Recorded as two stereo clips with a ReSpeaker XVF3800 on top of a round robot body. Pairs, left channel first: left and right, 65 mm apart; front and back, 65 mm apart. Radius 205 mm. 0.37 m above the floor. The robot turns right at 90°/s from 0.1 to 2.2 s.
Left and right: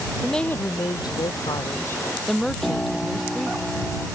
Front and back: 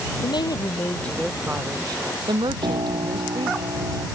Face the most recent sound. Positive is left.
turn(degrees=170)